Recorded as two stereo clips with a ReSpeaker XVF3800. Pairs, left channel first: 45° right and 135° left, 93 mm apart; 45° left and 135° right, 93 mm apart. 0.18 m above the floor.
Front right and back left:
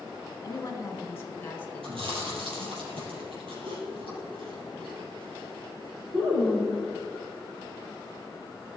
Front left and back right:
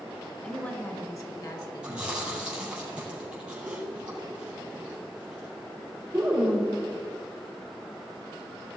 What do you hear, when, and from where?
0.4 s a woman speaking: 30° right, 1.1 m; by 2.8 s 30° left, 3 m
1.8 s chewing: 145° left, 4 m